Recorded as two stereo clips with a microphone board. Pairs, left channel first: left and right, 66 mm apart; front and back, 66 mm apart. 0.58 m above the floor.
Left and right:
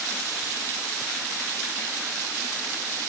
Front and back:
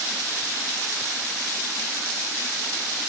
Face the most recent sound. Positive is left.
No sound to turn to.